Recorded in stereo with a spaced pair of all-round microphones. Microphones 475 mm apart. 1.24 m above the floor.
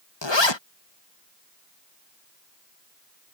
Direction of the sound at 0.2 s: 65° left (ahead or behind).